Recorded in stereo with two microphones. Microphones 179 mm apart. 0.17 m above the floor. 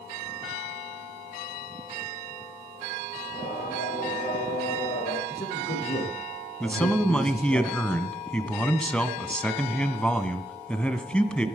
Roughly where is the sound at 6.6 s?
Centre.